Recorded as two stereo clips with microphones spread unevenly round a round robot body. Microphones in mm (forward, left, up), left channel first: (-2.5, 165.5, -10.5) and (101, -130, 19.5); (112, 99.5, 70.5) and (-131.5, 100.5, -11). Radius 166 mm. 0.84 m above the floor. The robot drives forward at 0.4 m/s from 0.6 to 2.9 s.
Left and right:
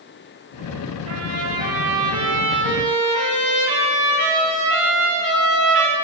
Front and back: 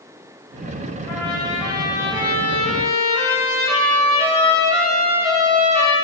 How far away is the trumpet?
About 5 m.